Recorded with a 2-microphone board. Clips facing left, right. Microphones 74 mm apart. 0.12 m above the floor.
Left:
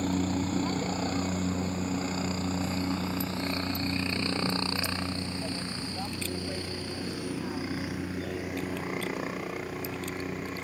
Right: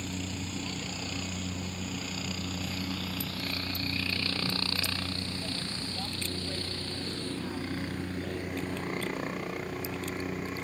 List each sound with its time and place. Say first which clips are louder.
0.0 s a helicopter: left 9 dB; 45° left (ahead or behind); by 10.6 s centre (ahead or behind)